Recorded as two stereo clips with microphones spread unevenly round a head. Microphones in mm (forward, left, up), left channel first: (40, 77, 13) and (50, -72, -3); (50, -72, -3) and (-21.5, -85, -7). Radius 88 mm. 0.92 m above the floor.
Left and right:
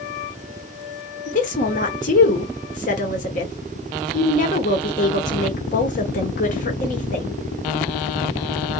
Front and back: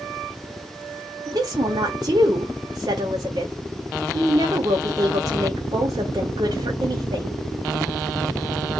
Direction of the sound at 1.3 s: 140° left.